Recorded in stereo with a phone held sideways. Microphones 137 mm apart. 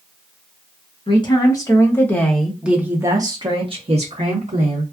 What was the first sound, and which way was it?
A woman speaking, 35° left (ahead or behind).